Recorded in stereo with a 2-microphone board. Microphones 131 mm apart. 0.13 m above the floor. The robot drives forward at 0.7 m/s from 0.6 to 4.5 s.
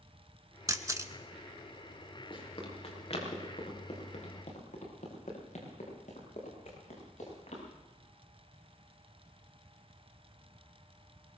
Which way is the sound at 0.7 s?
25° right (ahead or behind).